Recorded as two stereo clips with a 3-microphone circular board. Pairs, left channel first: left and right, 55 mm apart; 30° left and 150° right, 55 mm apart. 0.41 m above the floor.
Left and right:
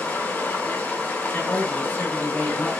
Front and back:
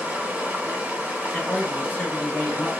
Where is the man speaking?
60° left, 1.5 m.